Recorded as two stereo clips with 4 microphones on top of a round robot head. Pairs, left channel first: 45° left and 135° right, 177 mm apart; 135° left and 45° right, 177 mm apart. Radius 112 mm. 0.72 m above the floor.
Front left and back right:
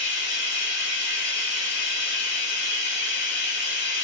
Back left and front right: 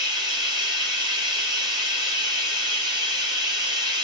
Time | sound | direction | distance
0.0 | running water | 20° left | 1.5 m